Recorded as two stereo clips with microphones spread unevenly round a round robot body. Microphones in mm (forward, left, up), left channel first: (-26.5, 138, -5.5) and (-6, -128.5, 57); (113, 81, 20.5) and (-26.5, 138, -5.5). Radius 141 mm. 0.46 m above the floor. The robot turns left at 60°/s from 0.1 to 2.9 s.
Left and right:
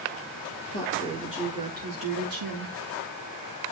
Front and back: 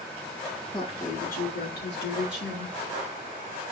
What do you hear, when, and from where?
0.7 s a woman speaking: 40° left, 7 m; by 2.8 s 85° right, 7 m